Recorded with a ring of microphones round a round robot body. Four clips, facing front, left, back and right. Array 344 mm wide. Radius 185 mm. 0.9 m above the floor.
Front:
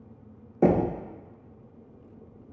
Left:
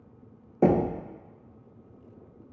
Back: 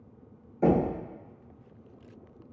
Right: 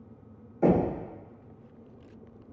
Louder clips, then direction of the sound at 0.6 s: Left 1 dB, front 2 dB; 45° left.